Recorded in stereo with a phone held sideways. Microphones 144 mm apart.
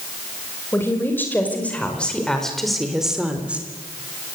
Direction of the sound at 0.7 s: 15° left (ahead or behind).